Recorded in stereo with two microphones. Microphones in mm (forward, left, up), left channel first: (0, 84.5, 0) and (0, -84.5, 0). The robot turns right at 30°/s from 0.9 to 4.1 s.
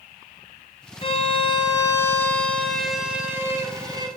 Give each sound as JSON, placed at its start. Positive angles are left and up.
{"t": 1.0, "sound": "a violin", "azimuth_deg": 125, "distance_m": 1.6}